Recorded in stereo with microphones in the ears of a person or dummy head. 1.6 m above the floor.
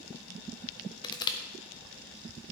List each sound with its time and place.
1.0 s crushing: 25° left (ahead or behind), 0.7 m